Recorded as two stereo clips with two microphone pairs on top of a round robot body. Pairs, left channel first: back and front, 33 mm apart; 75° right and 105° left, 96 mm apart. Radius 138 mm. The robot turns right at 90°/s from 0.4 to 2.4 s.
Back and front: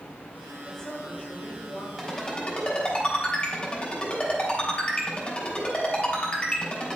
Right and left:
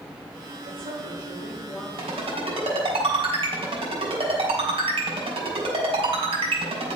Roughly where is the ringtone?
Left.